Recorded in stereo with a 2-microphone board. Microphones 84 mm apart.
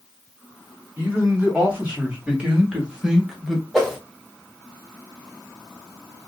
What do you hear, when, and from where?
1.0 s a man speaking: 20° right (ahead or behind), 2.5 m; by 3.6 s centre (ahead or behind), 1.1 m
3.7 s a whoosh: centre (ahead or behind), 1.3 m